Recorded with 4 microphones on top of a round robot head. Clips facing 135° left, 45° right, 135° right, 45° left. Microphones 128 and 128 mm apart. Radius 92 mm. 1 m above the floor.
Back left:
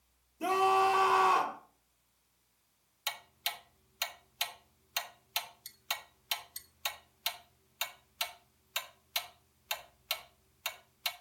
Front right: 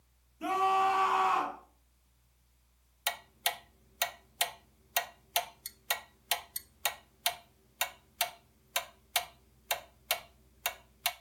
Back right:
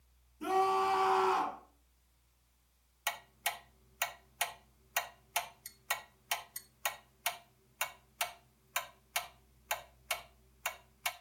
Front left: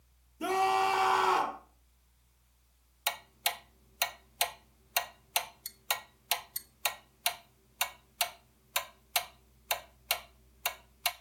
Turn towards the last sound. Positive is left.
turn(degrees=-15)